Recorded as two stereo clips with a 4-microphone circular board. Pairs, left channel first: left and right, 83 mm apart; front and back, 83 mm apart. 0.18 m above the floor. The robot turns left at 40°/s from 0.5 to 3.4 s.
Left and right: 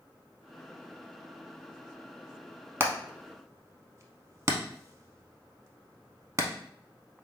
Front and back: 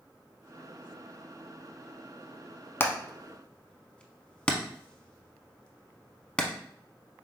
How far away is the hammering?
About 0.6 m.